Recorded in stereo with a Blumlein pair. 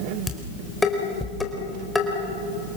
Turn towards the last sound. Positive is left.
turn(degrees=10)